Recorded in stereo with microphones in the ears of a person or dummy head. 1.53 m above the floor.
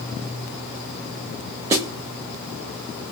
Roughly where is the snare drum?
Centre.